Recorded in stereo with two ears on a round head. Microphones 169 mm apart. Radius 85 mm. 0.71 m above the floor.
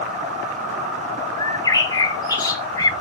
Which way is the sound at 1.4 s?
20° left (ahead or behind).